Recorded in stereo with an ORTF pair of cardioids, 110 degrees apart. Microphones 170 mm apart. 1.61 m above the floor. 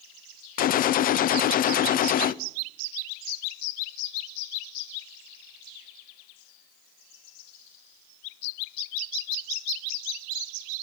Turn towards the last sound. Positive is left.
turn(degrees=60)